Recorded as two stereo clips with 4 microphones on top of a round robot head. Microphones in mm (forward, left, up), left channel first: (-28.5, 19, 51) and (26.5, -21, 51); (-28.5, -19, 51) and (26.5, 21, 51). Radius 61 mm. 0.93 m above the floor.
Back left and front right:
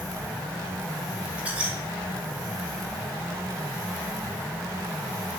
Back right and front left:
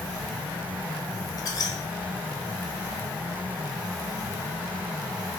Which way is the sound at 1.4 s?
110° right.